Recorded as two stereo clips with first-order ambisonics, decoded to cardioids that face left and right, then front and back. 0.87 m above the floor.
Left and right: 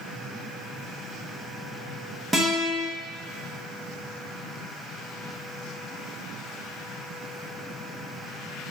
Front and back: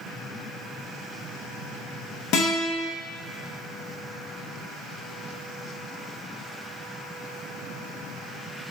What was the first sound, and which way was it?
A guitar, 5° right.